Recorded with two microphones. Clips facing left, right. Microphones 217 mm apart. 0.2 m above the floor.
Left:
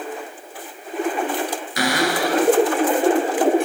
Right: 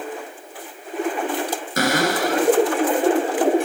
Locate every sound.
1.8 s a cupboard door: 50° right (ahead or behind), 1.1 m